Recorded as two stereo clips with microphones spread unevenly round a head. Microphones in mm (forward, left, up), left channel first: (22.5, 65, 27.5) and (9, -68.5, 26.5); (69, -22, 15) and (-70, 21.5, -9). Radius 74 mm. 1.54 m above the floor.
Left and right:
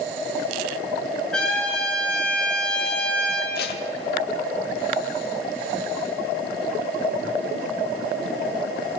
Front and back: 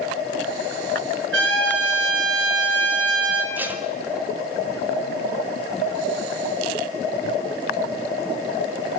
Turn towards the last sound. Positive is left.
turn(degrees=80)